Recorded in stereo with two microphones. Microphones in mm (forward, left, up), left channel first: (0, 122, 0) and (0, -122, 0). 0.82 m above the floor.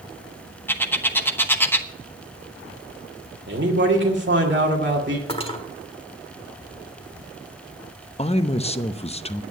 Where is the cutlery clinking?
20° left (ahead or behind), 1.5 m.